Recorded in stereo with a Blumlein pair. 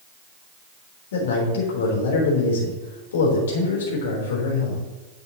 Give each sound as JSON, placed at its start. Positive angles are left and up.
{"t": 1.1, "sound": "a man speaking", "azimuth_deg": 60, "distance_m": 3.5}